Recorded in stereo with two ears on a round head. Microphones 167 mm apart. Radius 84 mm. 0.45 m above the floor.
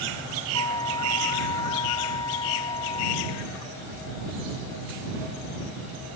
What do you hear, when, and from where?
0.5 s a flute: 20° left (ahead or behind)